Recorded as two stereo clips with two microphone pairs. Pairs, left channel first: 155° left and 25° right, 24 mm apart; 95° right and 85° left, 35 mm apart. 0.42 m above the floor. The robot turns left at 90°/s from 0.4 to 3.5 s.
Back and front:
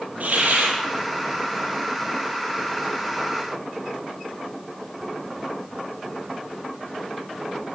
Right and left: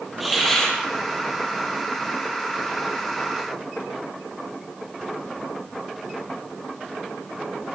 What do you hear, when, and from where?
0.2 s a hiss: straight ahead, 8 m; by 0.8 s 30° right, 8 m